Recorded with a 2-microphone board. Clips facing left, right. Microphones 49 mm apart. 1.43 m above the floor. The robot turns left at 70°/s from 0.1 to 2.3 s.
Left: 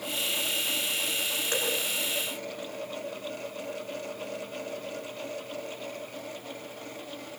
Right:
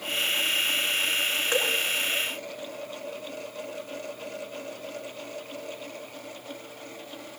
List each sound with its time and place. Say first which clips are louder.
1.5 s dripping: right 4 dB; 25° right (ahead or behind), 4.5 m; by 1.8 s 40° right (ahead or behind), 4.5 m